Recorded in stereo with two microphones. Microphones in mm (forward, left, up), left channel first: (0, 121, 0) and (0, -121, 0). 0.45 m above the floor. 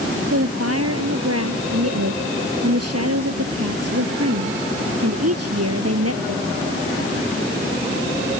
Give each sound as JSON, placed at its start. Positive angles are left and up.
{"t": 0.3, "sound": "a woman speaking", "side_deg": -75}